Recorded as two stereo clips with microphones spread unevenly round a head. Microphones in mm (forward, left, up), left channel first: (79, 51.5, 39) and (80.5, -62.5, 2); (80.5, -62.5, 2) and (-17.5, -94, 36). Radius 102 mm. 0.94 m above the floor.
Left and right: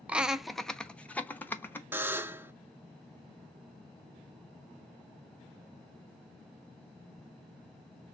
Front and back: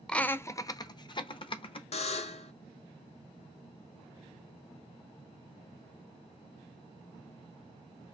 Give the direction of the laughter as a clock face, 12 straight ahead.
1 o'clock.